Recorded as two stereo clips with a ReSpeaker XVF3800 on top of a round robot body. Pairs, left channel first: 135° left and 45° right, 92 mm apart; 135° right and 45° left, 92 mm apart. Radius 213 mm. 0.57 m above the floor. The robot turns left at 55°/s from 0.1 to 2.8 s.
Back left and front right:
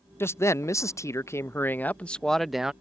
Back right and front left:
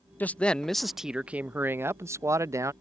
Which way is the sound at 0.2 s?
170° left.